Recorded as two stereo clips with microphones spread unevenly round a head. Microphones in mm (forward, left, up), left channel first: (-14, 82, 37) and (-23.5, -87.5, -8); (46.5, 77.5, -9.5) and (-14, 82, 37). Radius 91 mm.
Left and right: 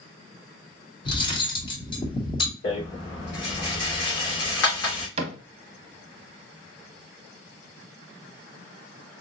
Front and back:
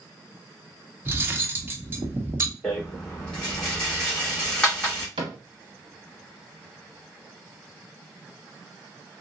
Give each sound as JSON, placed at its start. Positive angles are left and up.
{"t": 1.1, "sound": "cutlery clinking", "azimuth_deg": 140, "distance_m": 1.0}
{"t": 2.6, "sound": "a rattle", "azimuth_deg": 75, "distance_m": 2.5}
{"t": 5.2, "sound": "a cupboard door", "azimuth_deg": -135, "distance_m": 0.7}